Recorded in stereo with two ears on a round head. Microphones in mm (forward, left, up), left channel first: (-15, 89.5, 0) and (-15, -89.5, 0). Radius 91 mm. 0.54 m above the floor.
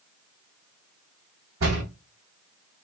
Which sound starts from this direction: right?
A door slam, at 1.6 s.